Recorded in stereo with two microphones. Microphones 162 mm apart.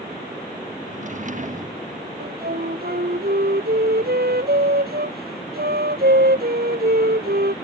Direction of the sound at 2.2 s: 70° right (ahead or behind).